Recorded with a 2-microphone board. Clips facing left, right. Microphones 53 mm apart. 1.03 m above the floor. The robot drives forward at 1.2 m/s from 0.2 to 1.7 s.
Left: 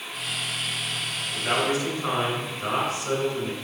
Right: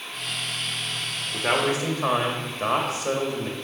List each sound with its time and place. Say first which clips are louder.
1.3 s a man speaking: right 2 dB; 75° right (ahead or behind), 2.0 m